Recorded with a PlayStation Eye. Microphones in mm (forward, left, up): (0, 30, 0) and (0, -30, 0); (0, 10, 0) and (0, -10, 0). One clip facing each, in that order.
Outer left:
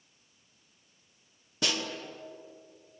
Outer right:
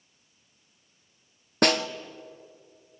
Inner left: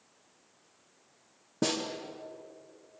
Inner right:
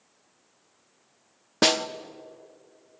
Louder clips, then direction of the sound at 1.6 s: Outer right 10 dB, inner right 9 dB; 55° right (ahead or behind).